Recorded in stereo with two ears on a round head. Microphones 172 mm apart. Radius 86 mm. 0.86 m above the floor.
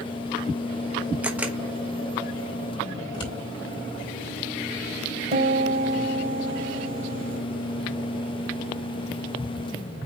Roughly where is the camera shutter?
Centre.